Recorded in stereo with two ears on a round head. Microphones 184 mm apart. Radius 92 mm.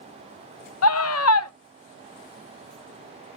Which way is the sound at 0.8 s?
80° left.